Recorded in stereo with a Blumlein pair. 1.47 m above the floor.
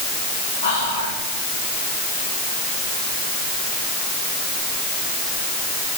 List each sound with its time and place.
0.6 s whispering: 65° left, 2.5 m